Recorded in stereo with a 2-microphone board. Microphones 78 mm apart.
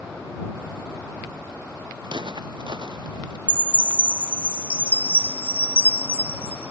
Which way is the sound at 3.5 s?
20° right (ahead or behind).